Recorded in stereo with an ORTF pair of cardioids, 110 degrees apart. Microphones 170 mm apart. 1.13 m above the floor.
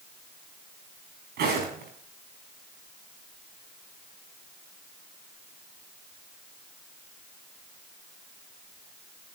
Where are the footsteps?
70° right, 5 m.